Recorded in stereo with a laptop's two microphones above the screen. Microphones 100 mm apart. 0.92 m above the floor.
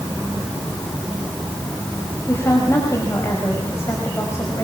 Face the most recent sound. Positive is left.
turn(degrees=25)  # may be behind; listen again after turning